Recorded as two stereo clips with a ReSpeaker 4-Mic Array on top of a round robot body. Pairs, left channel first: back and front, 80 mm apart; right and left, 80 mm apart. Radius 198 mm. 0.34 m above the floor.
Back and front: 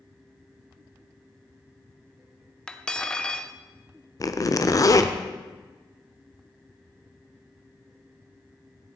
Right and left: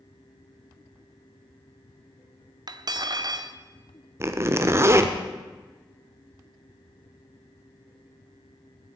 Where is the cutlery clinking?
100° left, 1.0 m.